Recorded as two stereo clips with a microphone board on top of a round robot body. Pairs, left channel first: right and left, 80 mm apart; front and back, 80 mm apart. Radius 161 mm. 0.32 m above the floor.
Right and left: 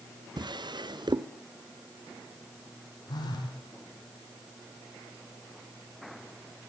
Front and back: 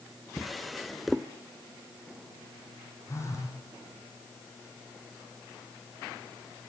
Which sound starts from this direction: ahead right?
A phone buzzing, at 3.1 s.